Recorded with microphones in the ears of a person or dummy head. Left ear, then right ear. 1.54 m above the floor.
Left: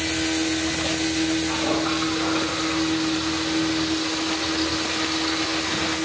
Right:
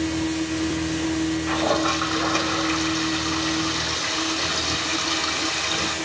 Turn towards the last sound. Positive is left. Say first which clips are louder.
# right 2 dB
turn(degrees=-40)  # may be behind; listen again after turning